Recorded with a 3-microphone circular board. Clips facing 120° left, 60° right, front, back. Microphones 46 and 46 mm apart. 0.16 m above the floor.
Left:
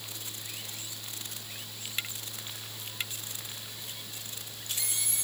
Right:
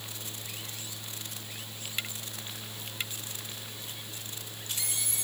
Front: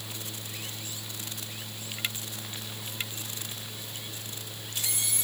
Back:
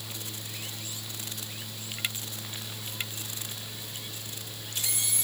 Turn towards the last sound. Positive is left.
No sound to turn to.